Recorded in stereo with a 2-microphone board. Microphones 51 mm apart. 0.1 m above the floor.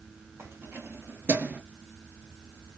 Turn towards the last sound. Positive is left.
turn(degrees=-25)  # may be behind; listen again after turning